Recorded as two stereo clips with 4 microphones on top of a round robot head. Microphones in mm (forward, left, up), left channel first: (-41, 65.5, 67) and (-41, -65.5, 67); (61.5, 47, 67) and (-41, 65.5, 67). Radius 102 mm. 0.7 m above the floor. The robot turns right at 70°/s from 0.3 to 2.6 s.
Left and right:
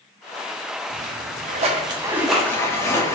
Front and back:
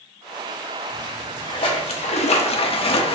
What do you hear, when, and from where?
0.9 s a splash: 100° right, 0.6 m; by 3.2 s 20° left, 0.6 m